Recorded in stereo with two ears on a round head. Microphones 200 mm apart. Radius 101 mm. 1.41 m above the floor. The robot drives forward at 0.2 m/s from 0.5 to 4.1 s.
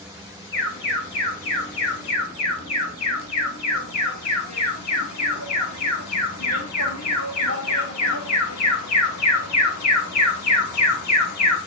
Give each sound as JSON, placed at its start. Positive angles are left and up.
{"t": 0.5, "sound": "an alarm", "side_deg": 55, "distance_m": 2.0}